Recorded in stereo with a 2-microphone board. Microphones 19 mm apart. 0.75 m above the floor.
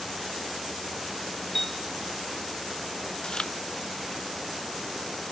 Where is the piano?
25° left (ahead or behind), 2.5 m.